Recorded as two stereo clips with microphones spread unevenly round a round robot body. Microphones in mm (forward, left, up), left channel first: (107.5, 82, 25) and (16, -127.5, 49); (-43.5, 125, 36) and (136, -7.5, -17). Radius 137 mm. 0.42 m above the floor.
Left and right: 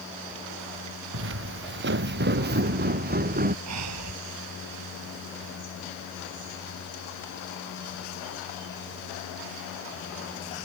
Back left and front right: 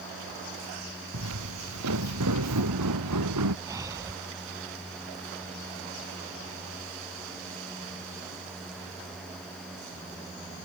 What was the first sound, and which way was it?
Footsteps, 80° right.